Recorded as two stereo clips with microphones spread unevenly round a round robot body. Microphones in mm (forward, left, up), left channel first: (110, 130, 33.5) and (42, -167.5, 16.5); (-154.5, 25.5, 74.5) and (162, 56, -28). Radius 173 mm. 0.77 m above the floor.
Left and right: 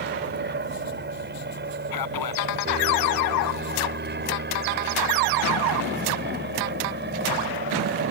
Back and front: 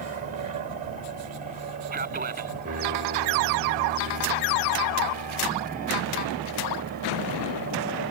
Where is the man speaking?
70° left.